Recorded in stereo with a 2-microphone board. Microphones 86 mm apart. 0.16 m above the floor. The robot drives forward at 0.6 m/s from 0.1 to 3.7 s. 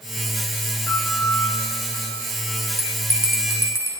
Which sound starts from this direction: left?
A piano, at 0.9 s.